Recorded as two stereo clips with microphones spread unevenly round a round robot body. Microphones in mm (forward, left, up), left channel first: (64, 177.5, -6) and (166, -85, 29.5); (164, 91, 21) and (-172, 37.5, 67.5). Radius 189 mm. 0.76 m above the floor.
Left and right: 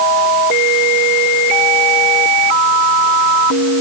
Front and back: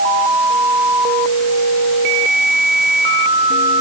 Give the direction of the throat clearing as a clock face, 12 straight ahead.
I don't hear throat clearing.